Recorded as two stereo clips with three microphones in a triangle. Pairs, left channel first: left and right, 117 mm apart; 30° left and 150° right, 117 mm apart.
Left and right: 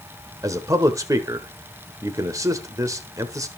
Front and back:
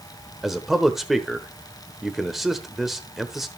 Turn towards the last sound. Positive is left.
turn(degrees=-65)